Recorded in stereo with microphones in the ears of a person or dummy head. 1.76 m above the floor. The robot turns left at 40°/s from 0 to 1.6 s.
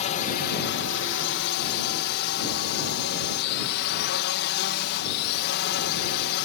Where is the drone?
140° left; by 6.5 s 75° left.